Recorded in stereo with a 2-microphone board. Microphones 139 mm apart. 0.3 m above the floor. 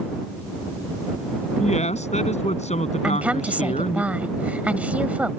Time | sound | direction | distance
1.6 | a woman speaking | 65° left (ahead or behind) | ?
3.0 | a woman speaking | 10° right (ahead or behind) | ?